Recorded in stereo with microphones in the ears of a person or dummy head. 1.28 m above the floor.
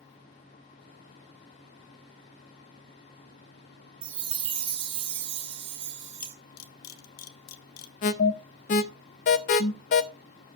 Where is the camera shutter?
85° left, 2 m.